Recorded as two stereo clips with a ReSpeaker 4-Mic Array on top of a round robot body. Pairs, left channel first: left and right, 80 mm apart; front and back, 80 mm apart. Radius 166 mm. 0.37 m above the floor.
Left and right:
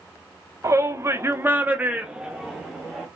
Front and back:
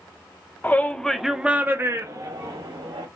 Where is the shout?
55° right, 1.2 m; by 3.1 s straight behind, 1.6 m.